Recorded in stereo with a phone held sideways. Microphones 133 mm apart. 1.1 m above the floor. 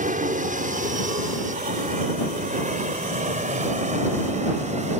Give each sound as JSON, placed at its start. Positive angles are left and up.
{"t": 0.0, "sound": "an aircraft", "side_deg": -70}